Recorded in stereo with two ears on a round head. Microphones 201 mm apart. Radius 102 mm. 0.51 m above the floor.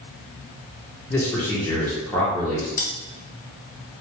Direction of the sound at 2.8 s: 35° left (ahead or behind).